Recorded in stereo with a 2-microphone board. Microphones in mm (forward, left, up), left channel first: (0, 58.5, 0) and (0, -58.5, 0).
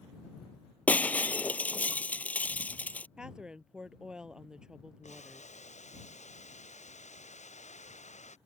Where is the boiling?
70° left (ahead or behind).